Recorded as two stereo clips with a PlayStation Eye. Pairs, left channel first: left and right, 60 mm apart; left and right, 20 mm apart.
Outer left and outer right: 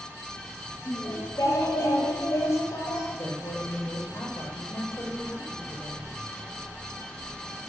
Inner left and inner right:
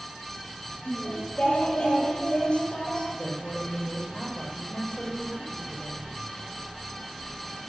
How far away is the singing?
About 5.5 m.